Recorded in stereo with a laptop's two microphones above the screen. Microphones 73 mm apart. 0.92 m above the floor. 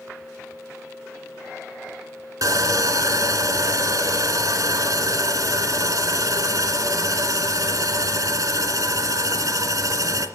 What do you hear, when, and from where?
2.4 s sawing: 60° right (ahead or behind), 2 m